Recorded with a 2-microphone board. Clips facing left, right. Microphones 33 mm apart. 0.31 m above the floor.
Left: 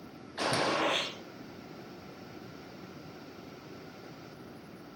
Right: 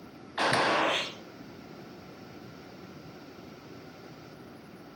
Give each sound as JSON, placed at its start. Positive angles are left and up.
{"t": 0.4, "sound": "a gunshot", "side_deg": -55, "distance_m": 0.8}